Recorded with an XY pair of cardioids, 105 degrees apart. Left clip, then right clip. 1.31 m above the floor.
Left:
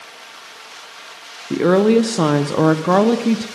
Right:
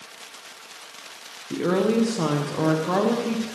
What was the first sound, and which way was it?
A woman speaking, 60° left.